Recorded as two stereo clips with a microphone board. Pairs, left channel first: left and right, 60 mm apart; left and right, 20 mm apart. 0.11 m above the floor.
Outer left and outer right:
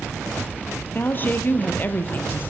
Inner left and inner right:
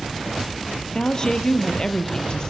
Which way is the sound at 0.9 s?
35° left (ahead or behind).